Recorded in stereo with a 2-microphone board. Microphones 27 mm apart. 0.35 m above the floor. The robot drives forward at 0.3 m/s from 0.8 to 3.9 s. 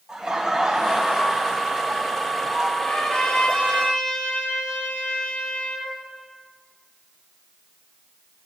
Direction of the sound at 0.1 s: 20° right (ahead or behind).